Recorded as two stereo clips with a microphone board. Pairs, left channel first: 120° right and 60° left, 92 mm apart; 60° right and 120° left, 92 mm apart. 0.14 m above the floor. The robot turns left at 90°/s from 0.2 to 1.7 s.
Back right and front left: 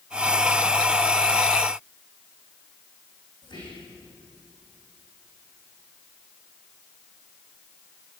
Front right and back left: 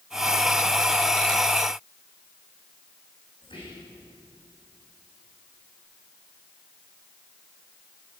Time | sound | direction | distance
3.4 | whispering | 90° right | 7.5 m